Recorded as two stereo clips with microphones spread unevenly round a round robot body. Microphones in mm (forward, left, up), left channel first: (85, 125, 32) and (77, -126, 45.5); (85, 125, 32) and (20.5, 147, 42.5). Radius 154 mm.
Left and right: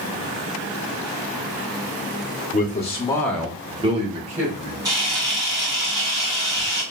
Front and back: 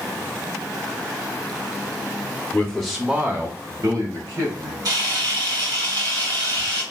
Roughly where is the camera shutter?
Behind.